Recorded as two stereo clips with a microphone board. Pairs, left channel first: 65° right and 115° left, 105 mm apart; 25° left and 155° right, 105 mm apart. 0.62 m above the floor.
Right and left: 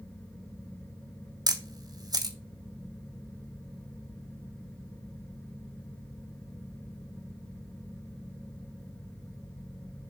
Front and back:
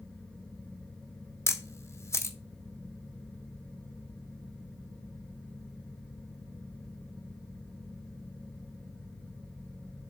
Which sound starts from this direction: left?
A camera shutter, at 1.5 s.